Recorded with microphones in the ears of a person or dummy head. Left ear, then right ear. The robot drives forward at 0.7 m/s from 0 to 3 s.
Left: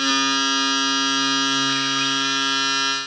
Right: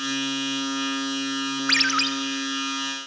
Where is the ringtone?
70° right (ahead or behind), 0.6 m; by 2.1 s 55° right (ahead or behind), 0.8 m.